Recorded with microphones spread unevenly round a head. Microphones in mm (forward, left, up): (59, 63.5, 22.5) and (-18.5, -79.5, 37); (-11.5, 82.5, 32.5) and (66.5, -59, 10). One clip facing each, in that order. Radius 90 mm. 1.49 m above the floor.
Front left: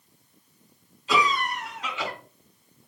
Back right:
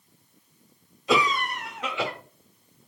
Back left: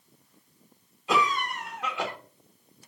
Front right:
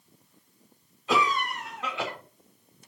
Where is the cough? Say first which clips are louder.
Back right 1 dB, even; 160° right, 0.9 m.